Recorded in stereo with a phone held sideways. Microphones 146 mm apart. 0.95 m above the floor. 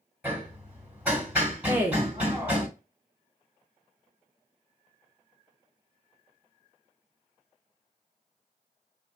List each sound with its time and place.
0.2 s hammering: 10° right (ahead or behind), 2.0 m
1.7 s a woman speaking: 15° right (ahead or behind), 0.8 m